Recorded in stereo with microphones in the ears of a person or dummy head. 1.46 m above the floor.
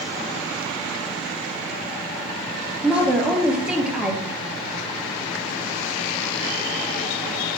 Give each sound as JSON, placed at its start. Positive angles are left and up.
{"t": 2.8, "sound": "a woman speaking", "side_deg": -5, "distance_m": 0.5}